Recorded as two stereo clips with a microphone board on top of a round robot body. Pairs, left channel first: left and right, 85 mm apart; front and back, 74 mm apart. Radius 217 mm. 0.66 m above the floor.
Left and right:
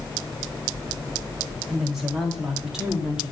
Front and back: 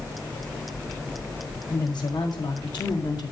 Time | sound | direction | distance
1.7 | a woman speaking | straight ahead | 4.5 m